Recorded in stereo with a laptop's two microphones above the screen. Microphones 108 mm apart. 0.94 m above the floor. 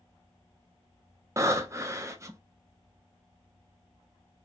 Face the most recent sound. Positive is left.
turn(degrees=-25)  # may be behind; listen again after turning